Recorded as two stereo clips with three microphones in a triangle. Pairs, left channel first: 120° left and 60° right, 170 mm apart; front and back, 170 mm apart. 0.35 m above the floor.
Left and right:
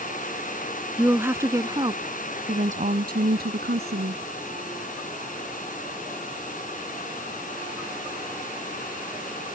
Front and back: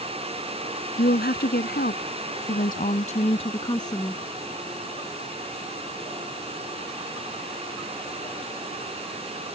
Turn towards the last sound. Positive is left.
turn(degrees=-75)